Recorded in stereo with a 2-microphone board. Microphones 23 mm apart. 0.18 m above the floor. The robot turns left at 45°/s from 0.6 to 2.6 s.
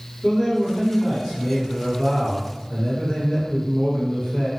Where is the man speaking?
140° left, 2.0 m; by 4.5 s 50° left, 2.0 m.